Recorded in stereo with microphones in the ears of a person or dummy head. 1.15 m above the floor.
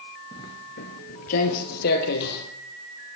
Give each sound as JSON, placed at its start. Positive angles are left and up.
{"t": 0.3, "sound": "footsteps", "side_deg": 20, "distance_m": 1.4}